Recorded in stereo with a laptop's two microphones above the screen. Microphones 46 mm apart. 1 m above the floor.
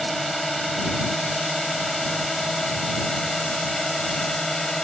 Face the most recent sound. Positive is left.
turn(degrees=10)  # may be behind; listen again after turning